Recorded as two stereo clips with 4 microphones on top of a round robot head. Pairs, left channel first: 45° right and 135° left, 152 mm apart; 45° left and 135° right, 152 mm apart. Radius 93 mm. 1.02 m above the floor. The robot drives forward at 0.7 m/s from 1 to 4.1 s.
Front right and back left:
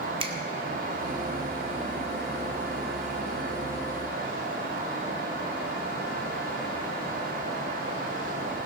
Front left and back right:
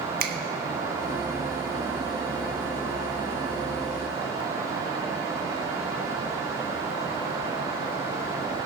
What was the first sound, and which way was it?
A finger snap, 165° right.